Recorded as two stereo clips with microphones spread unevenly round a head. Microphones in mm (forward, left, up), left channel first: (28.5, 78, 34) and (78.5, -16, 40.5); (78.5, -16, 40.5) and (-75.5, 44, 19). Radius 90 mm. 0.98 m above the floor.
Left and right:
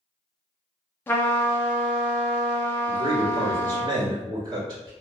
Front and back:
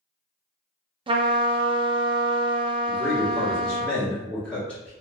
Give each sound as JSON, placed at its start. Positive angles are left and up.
{"t": 1.1, "sound": "a trumpet", "azimuth_deg": 170, "distance_m": 0.5}
{"t": 2.9, "sound": "a man speaking", "azimuth_deg": -110, "distance_m": 1.4}